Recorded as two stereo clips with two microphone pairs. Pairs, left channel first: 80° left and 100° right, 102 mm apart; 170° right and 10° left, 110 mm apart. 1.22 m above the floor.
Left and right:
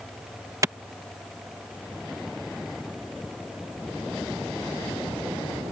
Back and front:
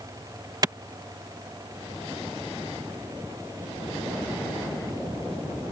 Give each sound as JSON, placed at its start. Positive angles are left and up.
{"t": 0.6, "sound": "a clap", "azimuth_deg": -45}